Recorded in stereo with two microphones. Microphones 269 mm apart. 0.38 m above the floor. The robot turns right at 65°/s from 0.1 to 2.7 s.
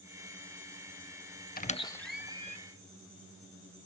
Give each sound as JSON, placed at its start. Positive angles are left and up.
{"t": 1.6, "sound": "a squeak", "side_deg": 35, "distance_m": 0.5}